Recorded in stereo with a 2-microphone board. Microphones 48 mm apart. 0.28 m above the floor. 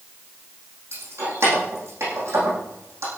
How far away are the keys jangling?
About 8.5 m.